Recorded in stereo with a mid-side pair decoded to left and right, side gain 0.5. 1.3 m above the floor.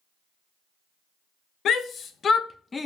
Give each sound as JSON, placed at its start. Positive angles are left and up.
{"t": 1.6, "sound": "a shout", "azimuth_deg": 60, "distance_m": 1.3}